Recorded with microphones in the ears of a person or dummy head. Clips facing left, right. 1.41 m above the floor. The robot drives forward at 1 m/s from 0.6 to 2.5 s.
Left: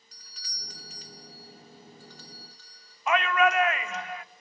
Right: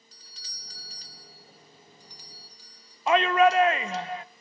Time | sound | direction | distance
0.1 | a doorbell | 30° right (ahead or behind) | 0.8 m
3.1 | a shout | 30° right (ahead or behind) | 0.8 m